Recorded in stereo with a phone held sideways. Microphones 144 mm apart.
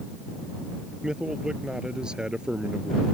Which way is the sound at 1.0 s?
5° right (ahead or behind).